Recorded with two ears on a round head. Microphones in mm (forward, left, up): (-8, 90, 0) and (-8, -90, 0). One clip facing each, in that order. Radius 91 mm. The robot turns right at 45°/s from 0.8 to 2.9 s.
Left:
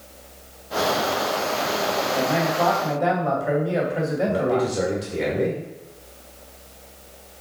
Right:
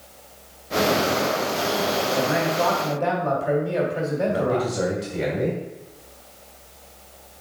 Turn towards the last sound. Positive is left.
turn(degrees=45)  # may be behind; listen again after turning